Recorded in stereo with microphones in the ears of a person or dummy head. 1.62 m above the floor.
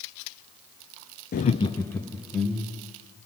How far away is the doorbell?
I don't hear a doorbell.